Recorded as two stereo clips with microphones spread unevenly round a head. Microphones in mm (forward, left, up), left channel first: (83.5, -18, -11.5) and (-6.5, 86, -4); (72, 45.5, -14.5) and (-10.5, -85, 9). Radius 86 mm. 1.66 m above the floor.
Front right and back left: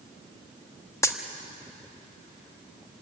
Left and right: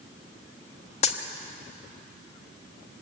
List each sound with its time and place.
1.0 s a dropped coin: 15° left, 1.4 m